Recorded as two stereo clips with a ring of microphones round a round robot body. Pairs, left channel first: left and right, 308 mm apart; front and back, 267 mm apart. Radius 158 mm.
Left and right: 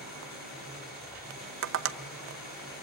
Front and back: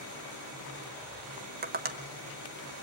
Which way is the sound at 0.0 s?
150° left.